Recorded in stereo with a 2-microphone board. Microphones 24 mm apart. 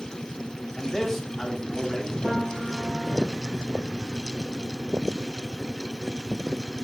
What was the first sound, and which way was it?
A man speaking, 5° left (ahead or behind).